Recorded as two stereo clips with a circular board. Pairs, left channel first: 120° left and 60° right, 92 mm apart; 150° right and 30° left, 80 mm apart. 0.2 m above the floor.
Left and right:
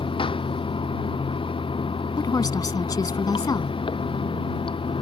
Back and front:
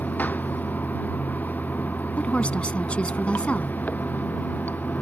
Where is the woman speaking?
140° left.